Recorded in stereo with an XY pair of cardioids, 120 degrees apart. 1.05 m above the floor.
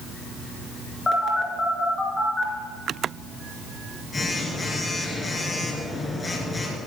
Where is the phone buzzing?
25° left, 2.5 m.